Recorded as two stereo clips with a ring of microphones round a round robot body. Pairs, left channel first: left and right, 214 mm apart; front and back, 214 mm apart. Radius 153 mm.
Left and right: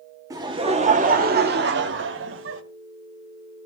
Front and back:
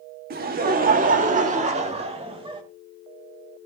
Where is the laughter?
160° right, 1.5 m; by 2.6 s 110° right, 2.5 m.